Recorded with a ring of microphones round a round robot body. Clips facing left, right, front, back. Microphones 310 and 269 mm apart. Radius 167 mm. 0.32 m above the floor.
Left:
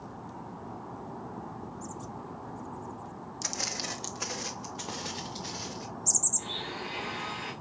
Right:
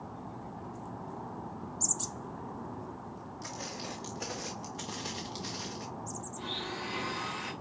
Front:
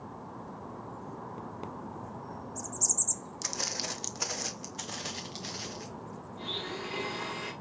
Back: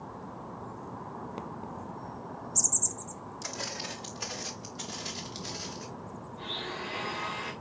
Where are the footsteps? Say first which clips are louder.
Left 2 dB, even; 55° left, 0.9 m; by 5.9 s 25° right, 1.8 m.